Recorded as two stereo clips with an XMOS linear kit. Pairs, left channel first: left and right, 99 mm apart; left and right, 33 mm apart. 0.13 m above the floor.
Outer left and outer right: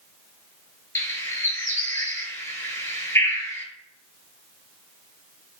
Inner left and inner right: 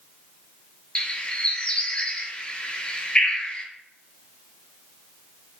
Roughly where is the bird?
Left.